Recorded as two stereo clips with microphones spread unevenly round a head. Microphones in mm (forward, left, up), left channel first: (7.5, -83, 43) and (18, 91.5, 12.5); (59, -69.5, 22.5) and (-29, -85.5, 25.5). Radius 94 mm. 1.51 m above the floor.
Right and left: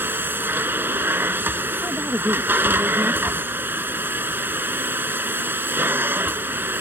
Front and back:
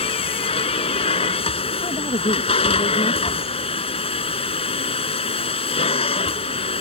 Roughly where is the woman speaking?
Ahead.